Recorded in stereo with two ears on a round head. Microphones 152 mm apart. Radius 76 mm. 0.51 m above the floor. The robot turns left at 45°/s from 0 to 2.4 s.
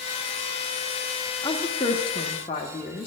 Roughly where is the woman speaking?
Behind left.